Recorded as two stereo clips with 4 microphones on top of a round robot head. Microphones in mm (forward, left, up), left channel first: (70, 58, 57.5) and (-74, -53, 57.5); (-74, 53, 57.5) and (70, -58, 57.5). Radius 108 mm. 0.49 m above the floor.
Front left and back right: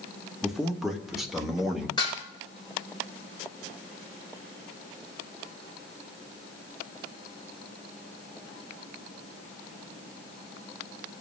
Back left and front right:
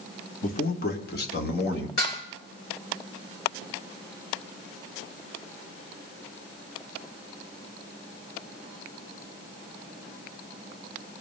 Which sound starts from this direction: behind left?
A man speaking, at 0.4 s.